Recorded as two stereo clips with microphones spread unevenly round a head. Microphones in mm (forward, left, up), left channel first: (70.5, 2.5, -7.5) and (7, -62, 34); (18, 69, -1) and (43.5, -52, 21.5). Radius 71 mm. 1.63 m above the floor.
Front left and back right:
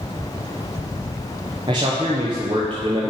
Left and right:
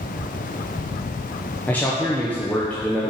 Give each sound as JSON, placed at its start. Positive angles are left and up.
{"t": 1.7, "sound": "a man speaking", "azimuth_deg": -175, "distance_m": 0.8}